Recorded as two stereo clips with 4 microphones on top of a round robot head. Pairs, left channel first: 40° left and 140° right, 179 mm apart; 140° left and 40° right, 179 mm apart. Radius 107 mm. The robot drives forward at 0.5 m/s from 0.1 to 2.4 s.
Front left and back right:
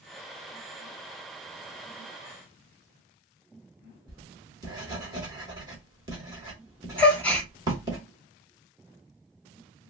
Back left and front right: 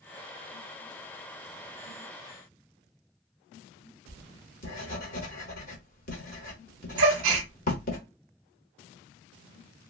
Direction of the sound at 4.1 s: 160° left.